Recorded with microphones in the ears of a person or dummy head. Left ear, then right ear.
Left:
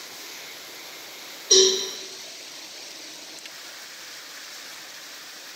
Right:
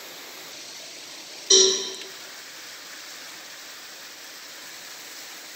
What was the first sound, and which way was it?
A cowbell, 45° right (ahead or behind).